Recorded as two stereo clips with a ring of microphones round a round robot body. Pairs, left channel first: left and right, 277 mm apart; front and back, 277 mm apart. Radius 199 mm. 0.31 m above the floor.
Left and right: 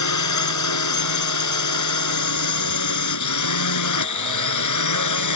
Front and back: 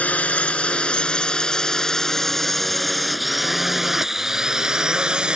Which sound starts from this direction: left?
A drone, at 0.0 s.